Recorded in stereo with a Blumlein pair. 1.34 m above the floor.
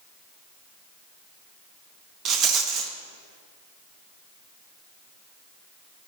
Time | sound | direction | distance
2.2 | a rattle | 30° right | 0.7 m